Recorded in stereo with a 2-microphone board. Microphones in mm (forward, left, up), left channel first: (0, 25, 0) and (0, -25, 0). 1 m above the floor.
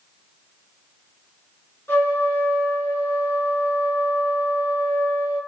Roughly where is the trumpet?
Left.